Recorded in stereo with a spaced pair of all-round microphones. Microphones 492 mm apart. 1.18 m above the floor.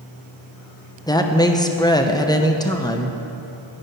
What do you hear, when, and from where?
1.1 s a woman speaking: 10° left (ahead or behind), 0.7 m